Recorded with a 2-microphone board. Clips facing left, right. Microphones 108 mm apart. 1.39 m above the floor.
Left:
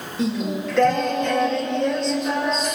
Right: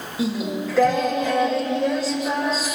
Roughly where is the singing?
Centre.